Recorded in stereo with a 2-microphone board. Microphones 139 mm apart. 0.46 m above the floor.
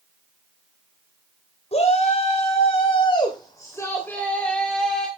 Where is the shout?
50° left (ahead or behind), 2.5 m; by 5.1 s centre (ahead or behind), 3.5 m.